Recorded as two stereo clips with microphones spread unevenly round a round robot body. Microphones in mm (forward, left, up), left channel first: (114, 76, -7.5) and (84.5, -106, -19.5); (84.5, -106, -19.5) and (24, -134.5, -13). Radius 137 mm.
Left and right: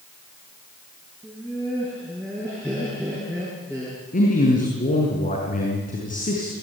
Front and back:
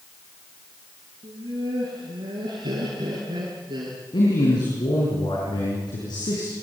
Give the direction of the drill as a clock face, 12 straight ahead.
No drill in this recording.